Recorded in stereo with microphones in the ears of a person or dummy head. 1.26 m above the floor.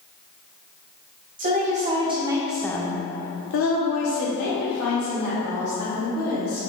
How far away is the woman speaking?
About 1.3 m.